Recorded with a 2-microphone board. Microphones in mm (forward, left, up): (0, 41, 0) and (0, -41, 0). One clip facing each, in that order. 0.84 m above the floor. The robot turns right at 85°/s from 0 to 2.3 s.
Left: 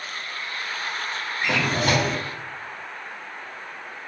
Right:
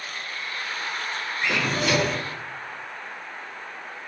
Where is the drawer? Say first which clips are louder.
Left 2 dB; 80° left, 1.1 m; by 2.2 s 145° left, 1.1 m.